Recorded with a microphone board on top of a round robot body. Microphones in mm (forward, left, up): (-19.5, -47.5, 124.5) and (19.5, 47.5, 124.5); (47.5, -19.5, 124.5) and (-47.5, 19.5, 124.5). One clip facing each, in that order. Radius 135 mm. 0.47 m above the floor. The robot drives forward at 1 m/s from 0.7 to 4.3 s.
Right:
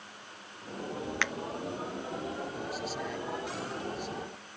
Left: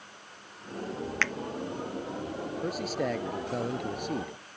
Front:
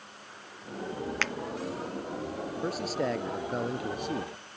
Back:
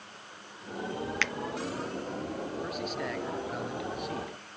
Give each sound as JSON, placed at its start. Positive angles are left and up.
{"t": 1.2, "sound": "a finger snap", "azimuth_deg": -45}
{"t": 2.6, "sound": "a man speaking", "azimuth_deg": 30}